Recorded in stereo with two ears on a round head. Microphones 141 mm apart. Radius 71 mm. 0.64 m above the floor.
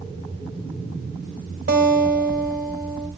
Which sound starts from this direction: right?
A guitar, at 1.7 s.